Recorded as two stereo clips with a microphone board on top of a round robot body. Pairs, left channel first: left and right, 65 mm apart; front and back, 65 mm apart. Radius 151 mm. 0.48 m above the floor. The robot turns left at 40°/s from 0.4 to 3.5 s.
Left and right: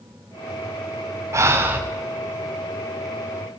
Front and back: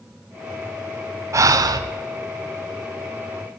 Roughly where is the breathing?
Behind right.